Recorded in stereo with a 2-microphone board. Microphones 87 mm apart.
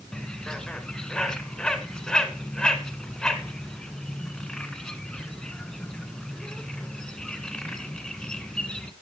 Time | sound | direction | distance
0.1 | a bird | 10° left (ahead or behind) | 1.2 m